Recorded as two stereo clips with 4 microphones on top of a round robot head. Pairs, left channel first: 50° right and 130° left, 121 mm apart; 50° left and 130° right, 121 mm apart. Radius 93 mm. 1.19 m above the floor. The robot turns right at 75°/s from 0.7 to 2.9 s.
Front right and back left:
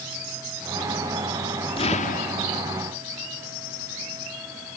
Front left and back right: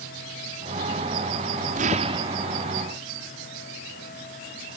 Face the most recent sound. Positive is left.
turn(degrees=-15)